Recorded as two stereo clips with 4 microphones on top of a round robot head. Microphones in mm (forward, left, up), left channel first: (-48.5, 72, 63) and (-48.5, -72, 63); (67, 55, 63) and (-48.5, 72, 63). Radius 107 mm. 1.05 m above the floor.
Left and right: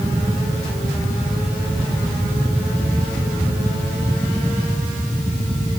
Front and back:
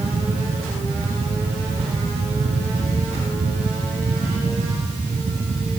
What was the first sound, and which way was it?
Only background noise.